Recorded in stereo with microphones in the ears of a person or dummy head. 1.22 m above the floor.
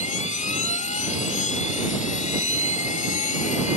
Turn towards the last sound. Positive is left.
turn(degrees=45)  # may be behind; listen again after turning